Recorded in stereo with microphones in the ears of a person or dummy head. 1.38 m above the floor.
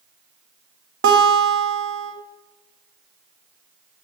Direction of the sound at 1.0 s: 60° right (ahead or behind).